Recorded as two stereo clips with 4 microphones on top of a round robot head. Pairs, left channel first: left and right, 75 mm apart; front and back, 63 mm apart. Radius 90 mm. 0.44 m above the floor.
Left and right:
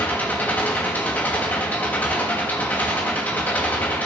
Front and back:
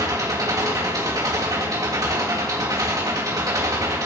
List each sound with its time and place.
0.0 s an engine running: 155° left, 3 m